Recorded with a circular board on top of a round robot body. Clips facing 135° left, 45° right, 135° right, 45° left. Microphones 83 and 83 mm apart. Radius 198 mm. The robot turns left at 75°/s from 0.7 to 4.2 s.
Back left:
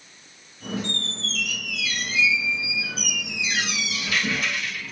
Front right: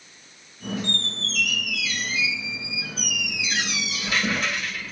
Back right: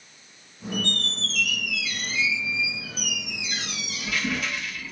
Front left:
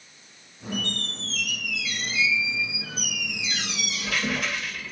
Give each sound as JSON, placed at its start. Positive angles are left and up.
{"t": 0.8, "sound": "a squeak", "azimuth_deg": -95, "distance_m": 0.9}